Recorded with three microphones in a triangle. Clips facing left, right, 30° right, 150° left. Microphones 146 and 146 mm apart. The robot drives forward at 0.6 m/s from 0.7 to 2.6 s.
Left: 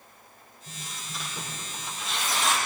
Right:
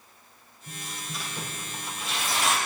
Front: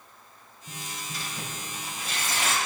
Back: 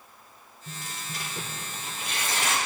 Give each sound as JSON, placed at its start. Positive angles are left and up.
{"t": 0.7, "sound": "tearing paper", "azimuth_deg": 180, "distance_m": 4.5}